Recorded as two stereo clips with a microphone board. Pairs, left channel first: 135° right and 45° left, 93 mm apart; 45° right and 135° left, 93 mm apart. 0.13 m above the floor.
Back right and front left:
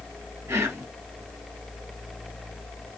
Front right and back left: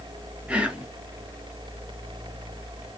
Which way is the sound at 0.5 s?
70° left.